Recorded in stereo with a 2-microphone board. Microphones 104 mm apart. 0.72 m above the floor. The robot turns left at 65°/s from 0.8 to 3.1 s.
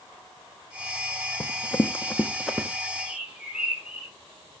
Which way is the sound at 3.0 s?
5° right (ahead or behind).